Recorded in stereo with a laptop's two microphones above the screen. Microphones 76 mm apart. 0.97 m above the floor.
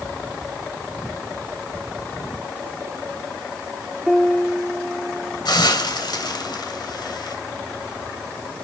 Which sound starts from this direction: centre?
A piano, at 4.1 s.